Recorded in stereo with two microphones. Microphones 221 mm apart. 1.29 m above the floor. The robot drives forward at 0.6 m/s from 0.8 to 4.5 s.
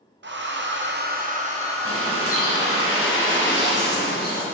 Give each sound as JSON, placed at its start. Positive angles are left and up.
{"t": 0.2, "sound": "a hair dryer", "side_deg": -55, "distance_m": 0.6}
{"t": 1.9, "sound": "a bird", "side_deg": 85, "distance_m": 1.3}